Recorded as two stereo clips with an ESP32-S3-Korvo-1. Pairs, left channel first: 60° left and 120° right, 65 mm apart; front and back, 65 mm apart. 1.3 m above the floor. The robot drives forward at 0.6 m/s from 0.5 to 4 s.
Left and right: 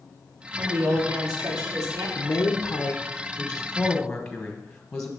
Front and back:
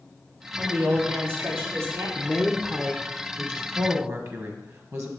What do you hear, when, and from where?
0.6 s a woman speaking: 125° right, 3 m; by 2.0 s 135° right, 3.5 m
2.1 s a woman speaking: 85° left, 0.9 m; by 5.1 s 140° left, 1.4 m